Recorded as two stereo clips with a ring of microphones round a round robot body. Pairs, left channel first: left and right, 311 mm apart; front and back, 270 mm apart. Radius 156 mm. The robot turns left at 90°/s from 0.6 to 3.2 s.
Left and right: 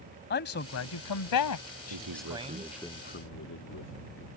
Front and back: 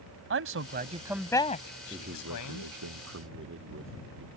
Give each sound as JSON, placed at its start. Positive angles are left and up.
{"t": 0.3, "sound": "a man speaking", "azimuth_deg": 145}
{"t": 1.9, "sound": "a man speaking", "azimuth_deg": -100}